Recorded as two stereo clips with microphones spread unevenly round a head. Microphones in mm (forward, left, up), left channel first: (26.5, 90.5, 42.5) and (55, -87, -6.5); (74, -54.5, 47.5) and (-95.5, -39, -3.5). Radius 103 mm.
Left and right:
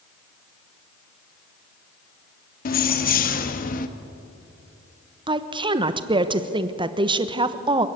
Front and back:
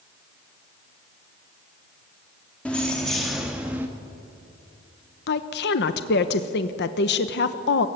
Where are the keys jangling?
75° left, 1.8 m; by 3.9 s 85° left, 1.1 m.